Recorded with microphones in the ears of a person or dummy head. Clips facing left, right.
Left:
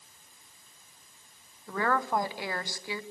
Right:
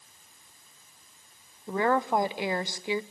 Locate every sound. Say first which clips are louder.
1.7 s a woman speaking: right 4 dB; 20° right (ahead or behind), 0.9 m